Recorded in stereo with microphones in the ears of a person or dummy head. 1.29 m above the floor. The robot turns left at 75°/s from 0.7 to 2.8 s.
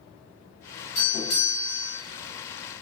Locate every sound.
0.9 s a doorbell: 145° left, 1.1 m; by 2.0 s 70° left, 1.1 m